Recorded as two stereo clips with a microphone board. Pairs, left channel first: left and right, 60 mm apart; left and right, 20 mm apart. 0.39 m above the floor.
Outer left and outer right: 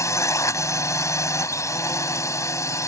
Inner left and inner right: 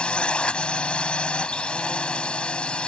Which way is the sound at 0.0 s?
60° left (ahead or behind).